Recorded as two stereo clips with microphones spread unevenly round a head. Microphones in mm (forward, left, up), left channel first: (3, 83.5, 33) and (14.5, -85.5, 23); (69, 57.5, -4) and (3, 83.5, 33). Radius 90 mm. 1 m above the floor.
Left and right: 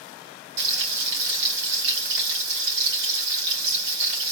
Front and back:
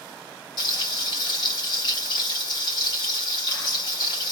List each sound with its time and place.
0.6 s frying: 65° right, 2.0 m